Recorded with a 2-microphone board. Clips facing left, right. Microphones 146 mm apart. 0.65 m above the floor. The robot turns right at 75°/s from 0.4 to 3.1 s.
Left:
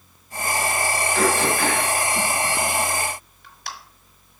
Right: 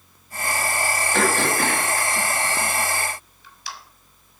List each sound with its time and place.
1.1 s throat clearing: 80° right, 1.3 m; by 3.7 s 55° left (ahead or behind), 1.3 m